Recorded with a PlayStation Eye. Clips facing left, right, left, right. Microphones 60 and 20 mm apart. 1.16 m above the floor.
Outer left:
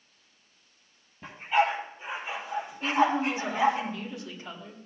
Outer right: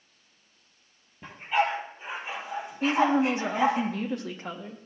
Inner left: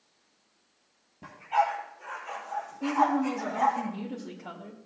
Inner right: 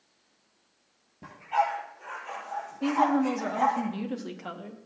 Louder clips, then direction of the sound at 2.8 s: Outer right 2 dB, inner right 1 dB; 65° right (ahead or behind).